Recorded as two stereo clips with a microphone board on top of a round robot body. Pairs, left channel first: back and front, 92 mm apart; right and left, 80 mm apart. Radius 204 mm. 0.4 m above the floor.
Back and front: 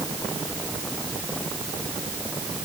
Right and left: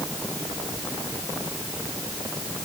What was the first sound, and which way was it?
Only background noise.